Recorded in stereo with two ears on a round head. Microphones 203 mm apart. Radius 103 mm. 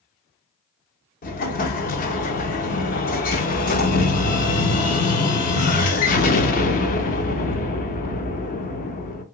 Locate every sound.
1.2 s an explosion: 35° left (ahead or behind), 0.5 m